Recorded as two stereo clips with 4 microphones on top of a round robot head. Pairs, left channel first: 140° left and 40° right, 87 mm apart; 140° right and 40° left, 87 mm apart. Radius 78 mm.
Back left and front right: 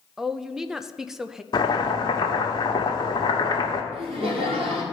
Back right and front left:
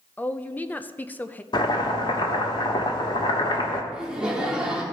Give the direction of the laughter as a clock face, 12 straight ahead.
1 o'clock.